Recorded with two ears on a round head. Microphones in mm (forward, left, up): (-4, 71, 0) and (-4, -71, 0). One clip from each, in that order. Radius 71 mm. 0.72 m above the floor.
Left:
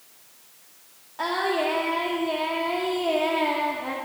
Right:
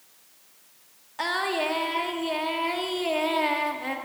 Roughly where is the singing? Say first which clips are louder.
Left 2 dB; right.